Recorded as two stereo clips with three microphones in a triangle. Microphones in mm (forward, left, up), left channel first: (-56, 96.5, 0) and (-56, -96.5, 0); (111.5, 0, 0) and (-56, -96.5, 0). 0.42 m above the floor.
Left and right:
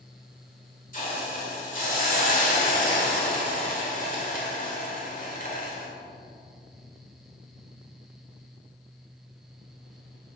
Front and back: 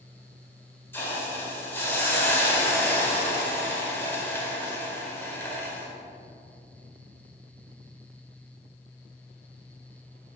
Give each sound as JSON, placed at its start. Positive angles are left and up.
{"t": 0.9, "sound": "a hiss", "azimuth_deg": 105, "distance_m": 1.8}